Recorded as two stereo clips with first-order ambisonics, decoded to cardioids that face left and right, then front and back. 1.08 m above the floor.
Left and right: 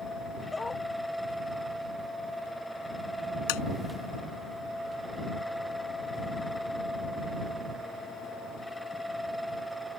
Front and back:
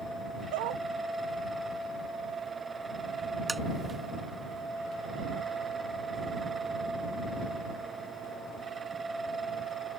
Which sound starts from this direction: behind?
A dog barking, at 0.5 s.